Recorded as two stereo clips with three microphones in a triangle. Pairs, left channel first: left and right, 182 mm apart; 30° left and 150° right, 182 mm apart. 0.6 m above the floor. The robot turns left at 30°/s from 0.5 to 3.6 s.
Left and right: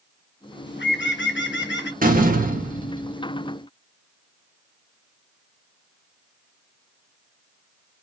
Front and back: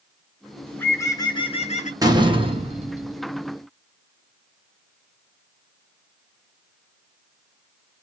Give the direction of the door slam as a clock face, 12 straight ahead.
3 o'clock.